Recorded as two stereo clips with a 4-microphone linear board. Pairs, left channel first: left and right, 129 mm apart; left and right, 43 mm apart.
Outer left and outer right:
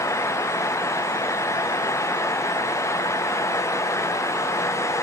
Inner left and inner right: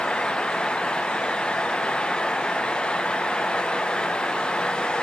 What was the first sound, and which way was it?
Only background noise.